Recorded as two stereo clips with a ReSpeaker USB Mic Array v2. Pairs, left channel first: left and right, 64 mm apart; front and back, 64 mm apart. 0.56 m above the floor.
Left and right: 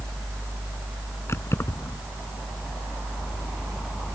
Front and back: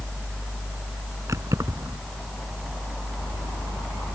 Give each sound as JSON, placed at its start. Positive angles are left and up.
{"t": 1.3, "sound": "keys jangling", "azimuth_deg": 140}